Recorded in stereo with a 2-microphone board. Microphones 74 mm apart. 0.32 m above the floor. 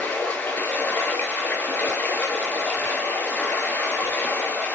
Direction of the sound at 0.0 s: 25° left (ahead or behind).